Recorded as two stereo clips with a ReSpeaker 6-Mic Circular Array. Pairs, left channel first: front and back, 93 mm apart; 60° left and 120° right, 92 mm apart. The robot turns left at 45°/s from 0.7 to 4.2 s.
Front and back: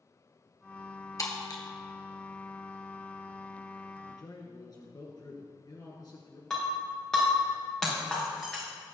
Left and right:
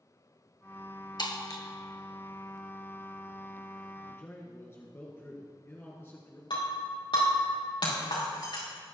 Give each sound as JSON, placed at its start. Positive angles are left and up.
{"t": 1.2, "sound": "breaking glass", "azimuth_deg": 45, "distance_m": 1.7}
{"t": 4.1, "sound": "a man speaking", "azimuth_deg": 15, "distance_m": 1.7}
{"t": 6.5, "sound": "breaking glass", "azimuth_deg": 85, "distance_m": 4.5}